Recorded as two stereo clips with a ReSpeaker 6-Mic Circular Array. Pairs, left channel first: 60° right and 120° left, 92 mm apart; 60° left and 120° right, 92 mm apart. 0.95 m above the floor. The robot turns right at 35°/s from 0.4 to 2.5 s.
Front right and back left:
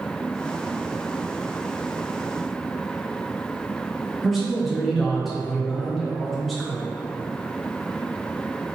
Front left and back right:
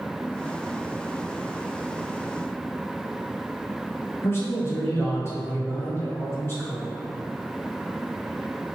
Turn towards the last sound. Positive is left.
turn(degrees=30)